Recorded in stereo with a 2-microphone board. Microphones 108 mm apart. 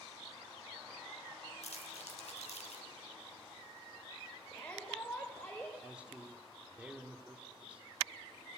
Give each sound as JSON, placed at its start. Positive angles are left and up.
{"t": 1.6, "sound": "crumpling", "side_deg": 85, "distance_m": 3.5}
{"t": 4.5, "sound": "a shout", "side_deg": 15, "distance_m": 3.5}
{"t": 5.8, "sound": "a man speaking", "side_deg": -10, "distance_m": 2.5}